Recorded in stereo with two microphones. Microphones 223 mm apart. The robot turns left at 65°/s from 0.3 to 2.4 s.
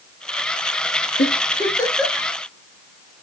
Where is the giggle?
50° left (ahead or behind), 1.3 m; by 2.3 s 15° right (ahead or behind), 1.3 m.